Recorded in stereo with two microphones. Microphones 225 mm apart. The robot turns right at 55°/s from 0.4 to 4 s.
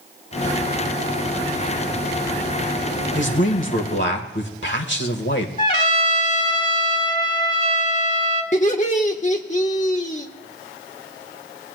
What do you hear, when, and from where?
3.1 s a man speaking: 65° left, 1.5 m; by 5.5 s 110° left, 1.5 m
5.6 s a trumpet: 35° left (ahead or behind), 1.7 m
8.5 s laughter: 35° left (ahead or behind), 1.1 m